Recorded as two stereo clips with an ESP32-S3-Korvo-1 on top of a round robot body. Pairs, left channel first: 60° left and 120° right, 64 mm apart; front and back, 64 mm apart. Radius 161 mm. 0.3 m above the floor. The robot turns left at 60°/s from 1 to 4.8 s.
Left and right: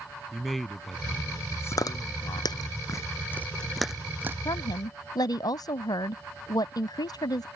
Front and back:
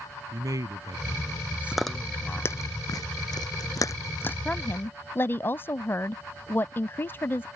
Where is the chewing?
95° left; by 4.3 s 60° right.